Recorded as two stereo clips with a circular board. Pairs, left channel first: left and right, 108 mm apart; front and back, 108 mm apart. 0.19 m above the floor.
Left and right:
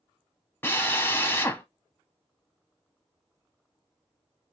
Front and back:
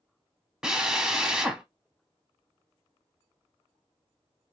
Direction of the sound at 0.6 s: 105° left.